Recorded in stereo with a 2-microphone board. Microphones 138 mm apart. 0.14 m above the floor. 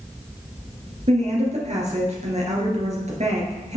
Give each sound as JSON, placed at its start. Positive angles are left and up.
{"t": 1.1, "sound": "a woman speaking", "side_deg": -55, "distance_m": 2.5}